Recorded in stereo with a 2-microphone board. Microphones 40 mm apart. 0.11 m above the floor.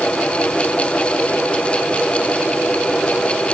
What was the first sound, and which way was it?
Only background noise.